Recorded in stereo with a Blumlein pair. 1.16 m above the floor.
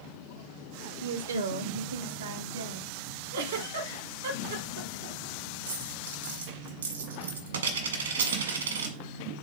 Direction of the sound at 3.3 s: 55° right.